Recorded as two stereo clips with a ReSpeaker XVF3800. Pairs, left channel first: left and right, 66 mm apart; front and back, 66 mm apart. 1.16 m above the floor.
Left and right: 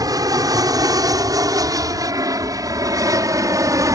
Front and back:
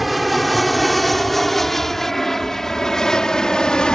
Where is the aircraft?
90° right; by 3.9 s 75° right.